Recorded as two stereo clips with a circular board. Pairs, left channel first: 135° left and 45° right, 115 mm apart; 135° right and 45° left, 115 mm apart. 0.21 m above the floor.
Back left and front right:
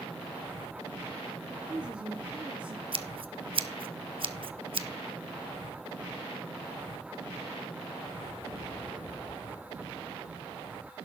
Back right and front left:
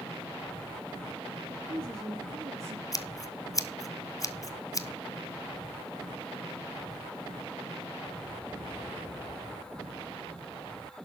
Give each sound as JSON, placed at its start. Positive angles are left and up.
{"t": 1.5, "sound": "a woman speaking", "azimuth_deg": 20, "distance_m": 2.5}
{"t": 2.9, "sound": "scissors", "azimuth_deg": -80, "distance_m": 0.7}